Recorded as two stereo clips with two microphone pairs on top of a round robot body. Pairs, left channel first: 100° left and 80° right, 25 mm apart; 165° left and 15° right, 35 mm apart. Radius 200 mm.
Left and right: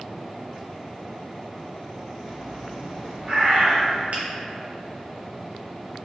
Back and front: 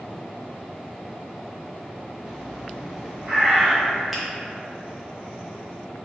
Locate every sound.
2.2 s a bird: 80° right, 1.1 m
4.1 s a finger snap: 95° right, 0.7 m